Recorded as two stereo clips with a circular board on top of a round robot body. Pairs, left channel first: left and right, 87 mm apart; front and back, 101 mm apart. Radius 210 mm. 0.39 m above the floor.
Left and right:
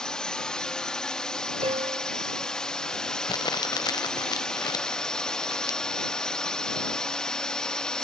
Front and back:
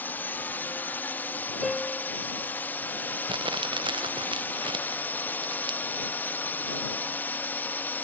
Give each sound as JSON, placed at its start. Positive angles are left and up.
{"t": 0.0, "sound": "a drone", "azimuth_deg": 25}
{"t": 1.6, "sound": "a piano", "azimuth_deg": -90}
{"t": 3.3, "sound": "crumpling", "azimuth_deg": 135}